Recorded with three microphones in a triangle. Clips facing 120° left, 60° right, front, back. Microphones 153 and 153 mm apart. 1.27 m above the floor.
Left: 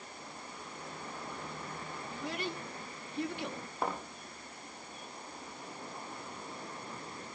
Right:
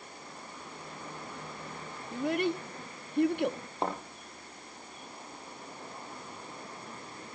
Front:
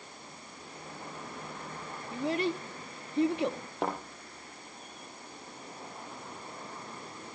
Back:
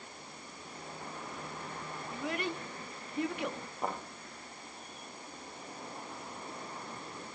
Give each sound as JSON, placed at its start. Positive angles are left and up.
{"t": 2.1, "sound": "a child speaking", "azimuth_deg": -55, "distance_m": 1.0}
{"t": 3.8, "sound": "a thud", "azimuth_deg": 5, "distance_m": 7.5}